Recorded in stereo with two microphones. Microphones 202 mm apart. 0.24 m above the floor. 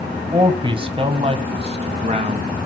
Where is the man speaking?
20° right (ahead or behind), 1.6 m; by 2.5 s 35° right (ahead or behind), 3 m.